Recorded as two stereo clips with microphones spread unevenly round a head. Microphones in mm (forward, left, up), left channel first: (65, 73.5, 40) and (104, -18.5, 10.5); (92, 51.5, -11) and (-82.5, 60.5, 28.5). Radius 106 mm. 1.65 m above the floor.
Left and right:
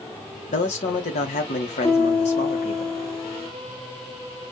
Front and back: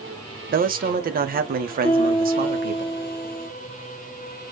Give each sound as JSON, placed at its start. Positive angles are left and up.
{"t": 0.5, "sound": "a man speaking", "azimuth_deg": 135, "distance_m": 0.8}
{"t": 1.8, "sound": "a piano", "azimuth_deg": 55, "distance_m": 1.7}